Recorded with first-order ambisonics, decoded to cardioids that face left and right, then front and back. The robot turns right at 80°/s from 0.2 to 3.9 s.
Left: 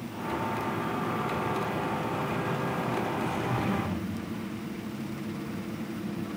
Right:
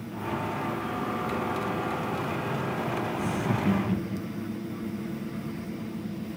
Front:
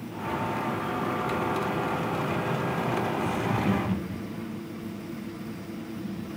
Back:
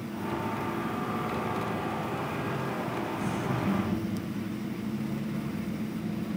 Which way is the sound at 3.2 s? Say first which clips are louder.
Right 1 dB, front 4 dB; 105° right.